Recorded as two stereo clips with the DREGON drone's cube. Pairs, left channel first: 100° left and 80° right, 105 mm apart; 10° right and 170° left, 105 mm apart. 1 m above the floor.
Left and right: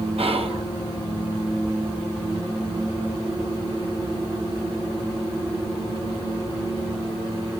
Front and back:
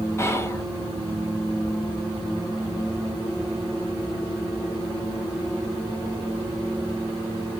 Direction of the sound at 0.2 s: 75° right.